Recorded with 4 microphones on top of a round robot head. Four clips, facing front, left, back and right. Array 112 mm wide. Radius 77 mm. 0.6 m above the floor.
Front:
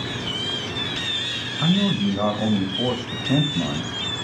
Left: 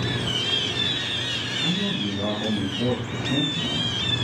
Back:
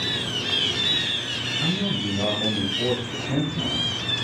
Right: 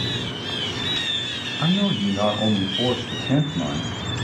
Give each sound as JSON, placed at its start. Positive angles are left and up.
{"t": 1.6, "sound": "a man speaking", "azimuth_deg": -50, "distance_m": 2.5}